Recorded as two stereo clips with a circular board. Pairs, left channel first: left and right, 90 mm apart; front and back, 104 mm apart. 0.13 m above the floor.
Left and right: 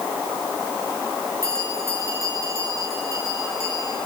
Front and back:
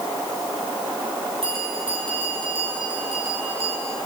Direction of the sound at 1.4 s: 145° right.